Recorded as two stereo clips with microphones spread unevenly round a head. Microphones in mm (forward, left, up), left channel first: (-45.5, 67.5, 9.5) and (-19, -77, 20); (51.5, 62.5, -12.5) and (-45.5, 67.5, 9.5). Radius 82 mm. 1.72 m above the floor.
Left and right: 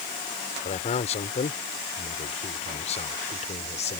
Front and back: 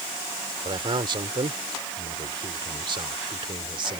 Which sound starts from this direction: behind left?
A man speaking, at 0.7 s.